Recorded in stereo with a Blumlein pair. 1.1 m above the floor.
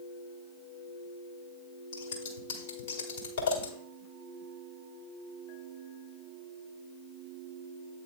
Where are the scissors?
65° left, 1.7 m.